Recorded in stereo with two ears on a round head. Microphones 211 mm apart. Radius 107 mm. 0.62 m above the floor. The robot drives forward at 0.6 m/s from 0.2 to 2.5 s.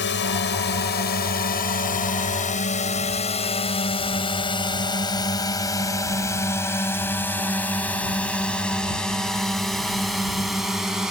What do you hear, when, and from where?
0.0 s a drone: 50° left (ahead or behind); by 11.1 s 5° right (ahead or behind)